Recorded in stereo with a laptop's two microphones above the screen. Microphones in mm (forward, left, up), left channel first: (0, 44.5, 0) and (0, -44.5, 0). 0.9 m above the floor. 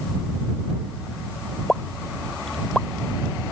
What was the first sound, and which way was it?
A pop, 5° left (ahead or behind).